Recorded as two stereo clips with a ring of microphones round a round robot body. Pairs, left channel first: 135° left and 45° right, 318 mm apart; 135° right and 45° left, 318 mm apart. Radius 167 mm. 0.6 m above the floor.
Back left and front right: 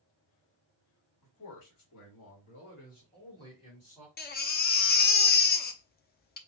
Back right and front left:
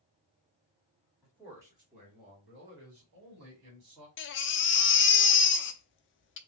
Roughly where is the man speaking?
Behind left.